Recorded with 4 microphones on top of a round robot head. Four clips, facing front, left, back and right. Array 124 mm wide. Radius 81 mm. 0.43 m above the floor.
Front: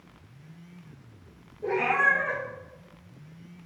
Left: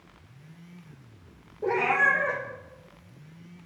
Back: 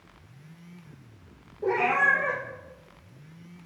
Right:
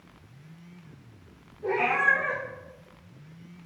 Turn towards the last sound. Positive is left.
turn(degrees=135)